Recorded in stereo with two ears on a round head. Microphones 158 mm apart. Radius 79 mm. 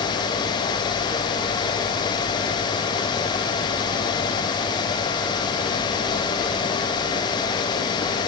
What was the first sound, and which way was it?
Only background noise.